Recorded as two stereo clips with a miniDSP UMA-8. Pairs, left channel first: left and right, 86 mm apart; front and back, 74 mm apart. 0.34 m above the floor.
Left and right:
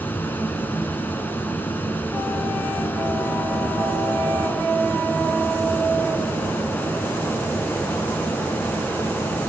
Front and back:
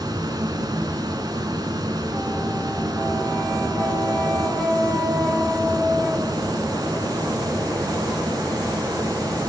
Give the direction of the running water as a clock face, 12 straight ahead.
7 o'clock.